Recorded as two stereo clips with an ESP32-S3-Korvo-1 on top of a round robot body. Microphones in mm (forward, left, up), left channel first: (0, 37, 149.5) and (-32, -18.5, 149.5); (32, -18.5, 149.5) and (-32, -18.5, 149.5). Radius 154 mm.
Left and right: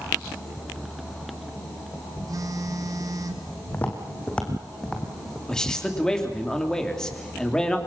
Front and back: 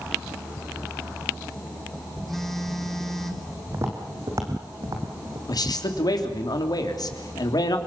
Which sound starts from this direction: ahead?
A man speaking, at 5.5 s.